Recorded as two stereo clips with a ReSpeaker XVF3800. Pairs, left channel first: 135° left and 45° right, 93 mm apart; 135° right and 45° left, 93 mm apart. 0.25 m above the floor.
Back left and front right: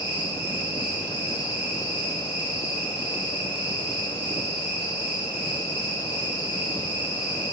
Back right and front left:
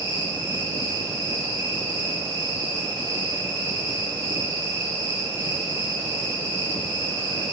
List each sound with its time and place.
0.0 s an insect: 10° left, 2 m